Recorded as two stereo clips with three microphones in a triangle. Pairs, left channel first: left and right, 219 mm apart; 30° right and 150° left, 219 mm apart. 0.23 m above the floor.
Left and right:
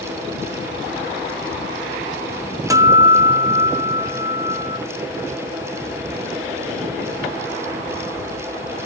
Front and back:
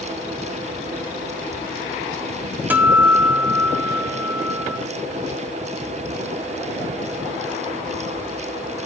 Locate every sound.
2.7 s a guitar: 140° right, 1.6 m